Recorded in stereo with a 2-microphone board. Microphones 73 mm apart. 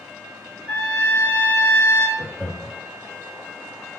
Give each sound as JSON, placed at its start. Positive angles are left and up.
{"t": 0.7, "sound": "a trumpet", "side_deg": 15, "distance_m": 1.7}
{"t": 2.2, "sound": "laughter", "side_deg": -20, "distance_m": 2.0}